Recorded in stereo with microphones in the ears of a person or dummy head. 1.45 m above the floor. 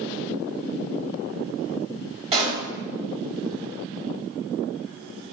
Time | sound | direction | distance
2.3 | a pop | 30° right (ahead or behind) | 1.3 m